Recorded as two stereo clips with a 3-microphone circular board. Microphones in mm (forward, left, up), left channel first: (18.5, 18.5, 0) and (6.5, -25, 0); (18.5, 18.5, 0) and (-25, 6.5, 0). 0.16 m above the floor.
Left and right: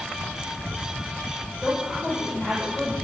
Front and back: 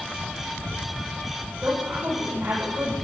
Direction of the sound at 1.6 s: 150° left.